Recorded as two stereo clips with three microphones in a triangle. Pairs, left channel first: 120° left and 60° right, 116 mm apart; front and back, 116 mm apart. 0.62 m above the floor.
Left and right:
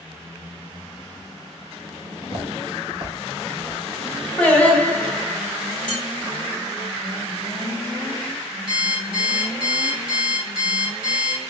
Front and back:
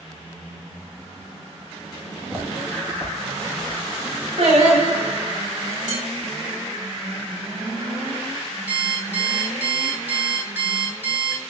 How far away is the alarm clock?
About 1.7 m.